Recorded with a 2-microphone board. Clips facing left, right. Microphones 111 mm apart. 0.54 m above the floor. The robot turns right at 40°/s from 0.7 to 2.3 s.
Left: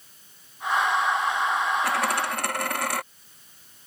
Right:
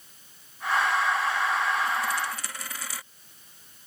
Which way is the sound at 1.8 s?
80° left.